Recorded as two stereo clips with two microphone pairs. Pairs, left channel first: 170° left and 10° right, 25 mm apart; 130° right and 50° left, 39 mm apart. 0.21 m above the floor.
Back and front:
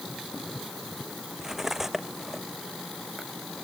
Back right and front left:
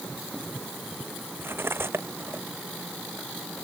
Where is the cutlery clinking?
65° left.